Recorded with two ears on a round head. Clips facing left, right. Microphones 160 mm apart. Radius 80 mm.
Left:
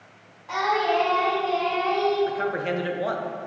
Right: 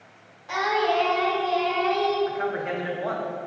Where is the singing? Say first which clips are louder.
Even; 15° right (ahead or behind), 1.7 m.